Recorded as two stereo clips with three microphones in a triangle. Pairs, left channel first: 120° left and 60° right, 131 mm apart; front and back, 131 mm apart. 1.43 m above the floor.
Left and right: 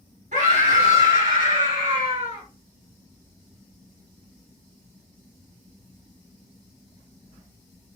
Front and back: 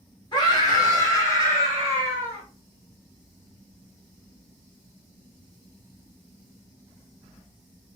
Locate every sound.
0.3 s a scream: 55° right, 1.6 m; by 2.4 s 75° right, 2.5 m